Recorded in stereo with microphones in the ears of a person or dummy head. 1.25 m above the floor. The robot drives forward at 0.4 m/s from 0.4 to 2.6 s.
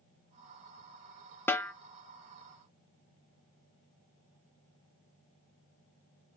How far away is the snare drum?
About 0.6 m.